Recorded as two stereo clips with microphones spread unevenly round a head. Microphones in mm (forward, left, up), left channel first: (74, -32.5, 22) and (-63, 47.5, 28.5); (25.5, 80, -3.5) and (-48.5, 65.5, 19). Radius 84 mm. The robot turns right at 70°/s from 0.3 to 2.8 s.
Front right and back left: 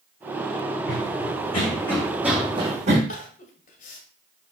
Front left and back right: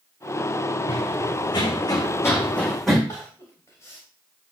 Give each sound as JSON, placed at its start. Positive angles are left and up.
{"t": 0.9, "sound": "running footsteps", "azimuth_deg": -15, "distance_m": 4.5}
{"t": 3.1, "sound": "crying", "azimuth_deg": -65, "distance_m": 2.0}